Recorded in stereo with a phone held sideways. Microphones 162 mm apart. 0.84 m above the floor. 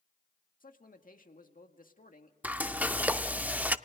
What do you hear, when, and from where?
0.6 s a man speaking: 60° left (ahead or behind), 1.7 m
2.4 s frying: 10° right (ahead or behind), 0.5 m